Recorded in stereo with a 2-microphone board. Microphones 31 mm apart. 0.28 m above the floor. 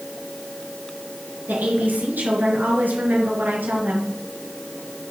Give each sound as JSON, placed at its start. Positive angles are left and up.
{"t": 1.5, "sound": "a woman speaking", "side_deg": -65, "distance_m": 4.5}